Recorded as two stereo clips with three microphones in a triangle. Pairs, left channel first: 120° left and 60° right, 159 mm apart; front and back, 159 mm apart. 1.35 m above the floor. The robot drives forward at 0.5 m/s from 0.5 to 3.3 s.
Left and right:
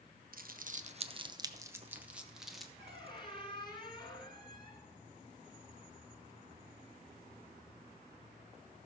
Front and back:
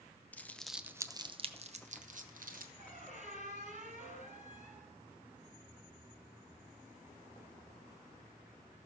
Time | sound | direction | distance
0.3 | crumpling | 80° right | 0.6 m
2.8 | a squeak | 165° left | 1.7 m